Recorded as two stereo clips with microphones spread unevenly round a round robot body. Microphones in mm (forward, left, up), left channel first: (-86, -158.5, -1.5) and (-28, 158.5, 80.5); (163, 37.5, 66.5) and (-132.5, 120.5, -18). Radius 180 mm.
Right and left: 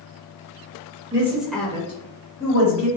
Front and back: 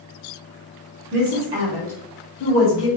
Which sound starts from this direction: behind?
A woman speaking, at 1.1 s.